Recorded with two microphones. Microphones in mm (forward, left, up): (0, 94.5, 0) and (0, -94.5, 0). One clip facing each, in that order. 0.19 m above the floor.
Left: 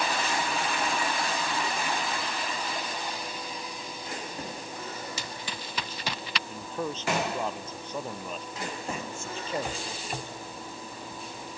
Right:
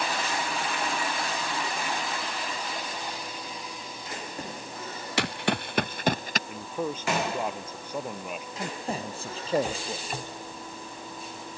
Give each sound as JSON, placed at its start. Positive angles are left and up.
{"t": 5.2, "sound": "running footsteps", "side_deg": -75}
{"t": 6.5, "sound": "a man speaking", "side_deg": -10}
{"t": 8.6, "sound": "a man speaking", "side_deg": -35}